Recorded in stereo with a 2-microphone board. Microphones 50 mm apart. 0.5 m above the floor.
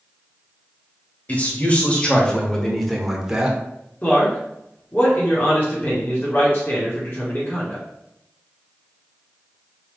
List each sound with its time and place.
1.3 s a man speaking: 30° left (ahead or behind), 1.6 m; by 3.6 s 20° right (ahead or behind), 1.0 m
4.0 s a man speaking: 35° left (ahead or behind), 1.4 m